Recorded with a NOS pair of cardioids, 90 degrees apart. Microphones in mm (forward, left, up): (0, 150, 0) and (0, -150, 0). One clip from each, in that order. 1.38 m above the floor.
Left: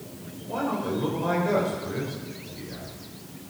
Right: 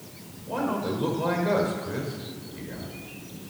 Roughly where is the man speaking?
Ahead.